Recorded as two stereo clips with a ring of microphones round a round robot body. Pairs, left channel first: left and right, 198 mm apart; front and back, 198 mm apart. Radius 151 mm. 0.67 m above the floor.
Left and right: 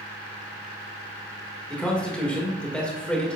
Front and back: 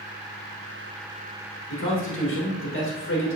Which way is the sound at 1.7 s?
5° left.